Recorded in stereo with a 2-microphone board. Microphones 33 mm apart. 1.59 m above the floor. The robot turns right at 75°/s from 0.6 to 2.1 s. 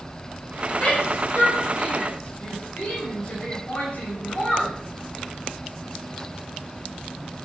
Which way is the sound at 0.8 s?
30° left (ahead or behind).